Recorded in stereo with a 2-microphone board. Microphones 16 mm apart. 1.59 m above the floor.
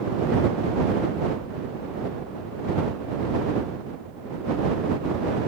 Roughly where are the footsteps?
No footsteps in this recording.